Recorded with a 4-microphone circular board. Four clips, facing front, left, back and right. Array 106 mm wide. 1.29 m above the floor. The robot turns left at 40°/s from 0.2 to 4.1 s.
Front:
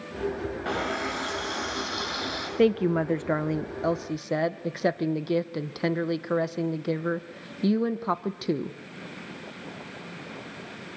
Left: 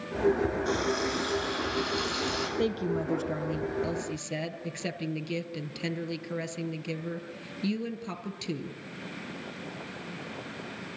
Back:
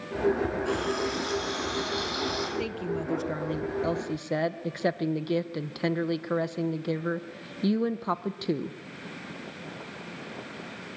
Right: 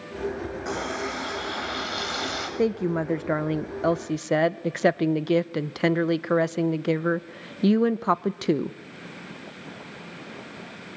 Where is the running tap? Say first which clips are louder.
Left 1 dB, back 1 dB; 25° right, 5 m; by 2.5 s 100° right, 5 m.